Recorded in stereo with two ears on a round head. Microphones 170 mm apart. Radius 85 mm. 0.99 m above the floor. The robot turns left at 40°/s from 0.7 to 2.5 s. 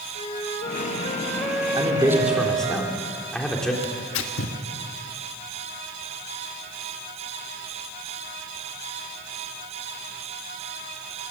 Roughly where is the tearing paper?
Left.